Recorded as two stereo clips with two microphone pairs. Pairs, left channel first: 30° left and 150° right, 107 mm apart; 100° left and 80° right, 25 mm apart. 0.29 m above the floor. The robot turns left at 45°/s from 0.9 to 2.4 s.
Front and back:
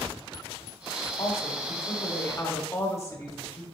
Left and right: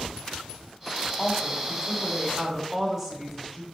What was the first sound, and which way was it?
A woman speaking, 50° left.